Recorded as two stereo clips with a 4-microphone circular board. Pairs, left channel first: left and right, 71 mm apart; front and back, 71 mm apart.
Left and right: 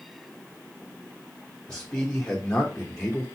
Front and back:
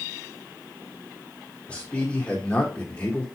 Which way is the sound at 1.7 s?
45° left.